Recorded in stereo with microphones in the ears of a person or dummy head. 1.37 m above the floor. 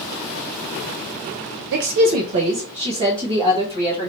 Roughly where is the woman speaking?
Right.